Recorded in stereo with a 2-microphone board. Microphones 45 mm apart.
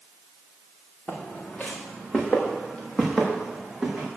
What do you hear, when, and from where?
1.1 s footsteps: 35° left (ahead or behind), 2 m; by 4.1 s 10° right (ahead or behind), 3.5 m